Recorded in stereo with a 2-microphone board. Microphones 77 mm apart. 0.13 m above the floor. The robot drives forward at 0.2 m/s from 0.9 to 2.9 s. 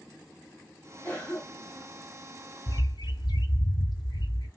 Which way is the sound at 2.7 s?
65° left (ahead or behind).